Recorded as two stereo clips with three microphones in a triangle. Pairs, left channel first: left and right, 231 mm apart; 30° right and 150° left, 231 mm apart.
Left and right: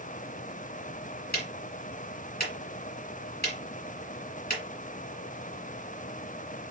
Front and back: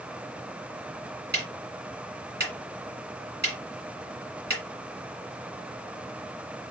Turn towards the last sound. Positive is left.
turn(degrees=125)